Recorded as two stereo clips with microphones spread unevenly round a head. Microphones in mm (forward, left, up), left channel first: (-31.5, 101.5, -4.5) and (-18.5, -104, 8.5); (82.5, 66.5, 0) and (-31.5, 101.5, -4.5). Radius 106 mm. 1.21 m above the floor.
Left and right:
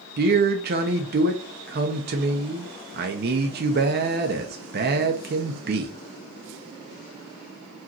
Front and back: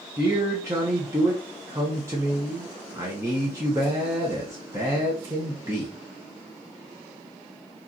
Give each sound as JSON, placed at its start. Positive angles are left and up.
{"t": 0.2, "sound": "a man speaking", "azimuth_deg": -125, "distance_m": 0.7}